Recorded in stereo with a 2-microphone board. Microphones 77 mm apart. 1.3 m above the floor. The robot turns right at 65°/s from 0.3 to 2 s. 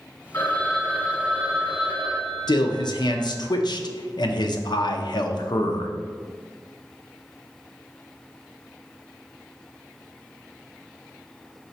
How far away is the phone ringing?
About 1.2 m.